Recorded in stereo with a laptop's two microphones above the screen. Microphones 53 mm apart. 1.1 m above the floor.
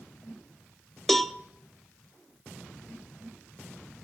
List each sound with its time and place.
1.1 s a cowbell: centre (ahead or behind), 0.6 m